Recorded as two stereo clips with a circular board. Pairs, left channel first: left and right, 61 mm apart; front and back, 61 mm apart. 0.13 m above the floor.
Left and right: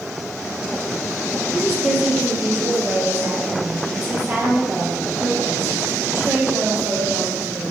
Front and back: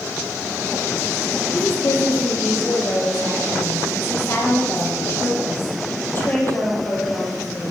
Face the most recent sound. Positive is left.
turn(degrees=-60)